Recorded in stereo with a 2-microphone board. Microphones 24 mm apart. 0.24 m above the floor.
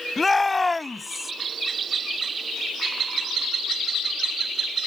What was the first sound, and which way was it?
A shout, 10° left (ahead or behind).